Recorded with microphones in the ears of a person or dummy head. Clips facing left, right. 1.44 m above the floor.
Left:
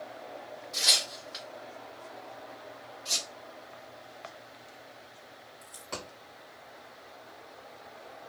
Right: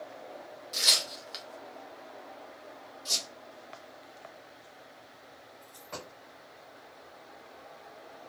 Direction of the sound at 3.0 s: 55° right (ahead or behind).